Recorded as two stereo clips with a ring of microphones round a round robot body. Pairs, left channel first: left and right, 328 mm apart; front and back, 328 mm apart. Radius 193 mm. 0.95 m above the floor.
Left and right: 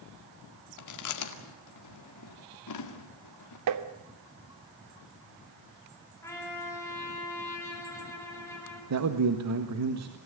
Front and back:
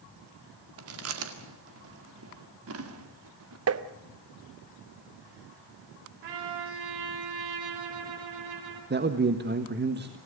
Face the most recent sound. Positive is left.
turn(degrees=-125)